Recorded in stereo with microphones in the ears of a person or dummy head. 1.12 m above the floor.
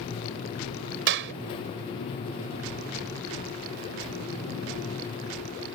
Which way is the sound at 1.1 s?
65° right (ahead or behind).